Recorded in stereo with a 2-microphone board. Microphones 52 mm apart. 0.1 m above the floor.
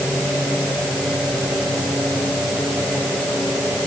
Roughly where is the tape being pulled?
No tape being pulled in this recording.